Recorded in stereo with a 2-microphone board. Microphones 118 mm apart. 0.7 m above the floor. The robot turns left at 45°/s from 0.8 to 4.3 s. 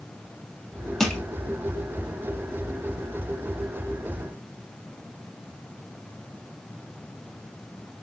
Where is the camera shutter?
No camera shutter in this recording.